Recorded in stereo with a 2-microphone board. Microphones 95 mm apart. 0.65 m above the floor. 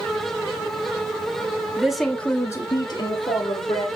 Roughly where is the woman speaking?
Centre.